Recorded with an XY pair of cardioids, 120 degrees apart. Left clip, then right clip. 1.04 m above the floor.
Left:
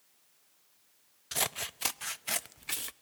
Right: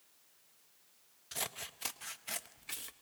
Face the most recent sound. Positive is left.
turn(degrees=45)